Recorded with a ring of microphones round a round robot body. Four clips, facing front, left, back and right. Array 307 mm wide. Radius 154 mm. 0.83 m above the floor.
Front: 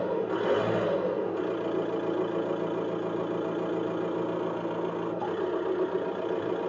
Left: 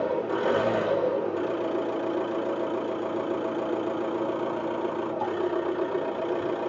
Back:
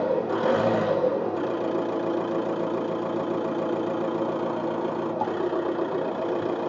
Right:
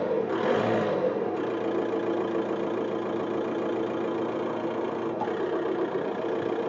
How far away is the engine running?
About 1.0 m.